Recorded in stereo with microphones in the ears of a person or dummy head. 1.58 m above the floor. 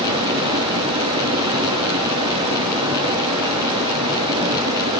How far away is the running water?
About 4.5 m.